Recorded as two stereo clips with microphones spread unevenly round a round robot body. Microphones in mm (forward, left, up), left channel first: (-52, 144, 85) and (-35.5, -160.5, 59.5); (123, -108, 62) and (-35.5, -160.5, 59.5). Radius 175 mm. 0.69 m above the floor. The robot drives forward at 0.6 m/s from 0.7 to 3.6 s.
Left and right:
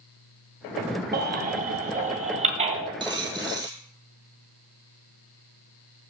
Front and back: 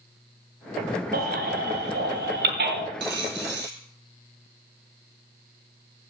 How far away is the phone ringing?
No phone ringing in this recording.